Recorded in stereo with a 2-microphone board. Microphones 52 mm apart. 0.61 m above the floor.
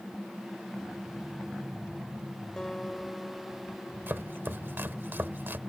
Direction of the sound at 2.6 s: 15° left (ahead or behind).